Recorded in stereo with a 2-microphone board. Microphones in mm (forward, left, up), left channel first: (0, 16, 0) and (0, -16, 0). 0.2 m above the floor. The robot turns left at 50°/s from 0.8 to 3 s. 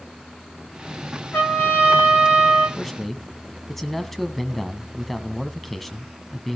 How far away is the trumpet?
About 10 m.